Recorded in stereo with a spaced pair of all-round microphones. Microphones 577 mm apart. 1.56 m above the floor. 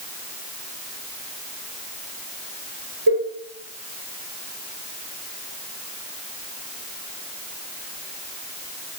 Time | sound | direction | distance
3.1 | a cowbell | 40° right (ahead or behind) | 1.0 m